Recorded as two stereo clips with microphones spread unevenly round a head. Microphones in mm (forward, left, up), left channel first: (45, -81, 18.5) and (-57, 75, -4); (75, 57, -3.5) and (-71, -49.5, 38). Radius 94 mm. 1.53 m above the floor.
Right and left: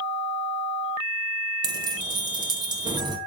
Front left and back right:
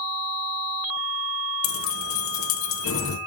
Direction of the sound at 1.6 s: 50° left.